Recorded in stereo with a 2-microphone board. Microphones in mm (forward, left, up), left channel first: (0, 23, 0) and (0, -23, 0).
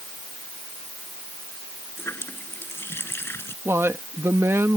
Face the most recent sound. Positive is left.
turn(degrees=-65)  # may be behind; listen again after turning